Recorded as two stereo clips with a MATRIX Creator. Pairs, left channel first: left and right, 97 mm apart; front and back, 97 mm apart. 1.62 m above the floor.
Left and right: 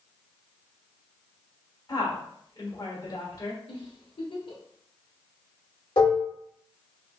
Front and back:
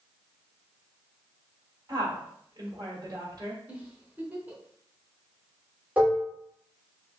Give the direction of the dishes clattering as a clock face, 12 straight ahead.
8 o'clock.